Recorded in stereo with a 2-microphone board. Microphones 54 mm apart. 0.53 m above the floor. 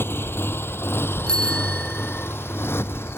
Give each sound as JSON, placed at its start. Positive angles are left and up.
{"t": 0.0, "sound": "a motorcycle", "side_deg": 45}
{"t": 1.3, "sound": "a bicycle bell", "side_deg": 15}